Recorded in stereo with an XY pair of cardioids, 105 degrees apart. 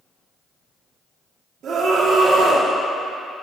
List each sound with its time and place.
1.6 s a scream: 65° right, 3 m